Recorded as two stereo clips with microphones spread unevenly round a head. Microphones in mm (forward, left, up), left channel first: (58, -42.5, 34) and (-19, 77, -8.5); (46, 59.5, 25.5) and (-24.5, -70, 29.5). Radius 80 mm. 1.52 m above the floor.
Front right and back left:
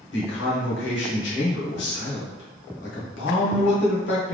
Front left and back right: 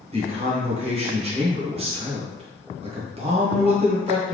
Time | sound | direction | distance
0.1 | a man speaking | 65° right | 1.4 m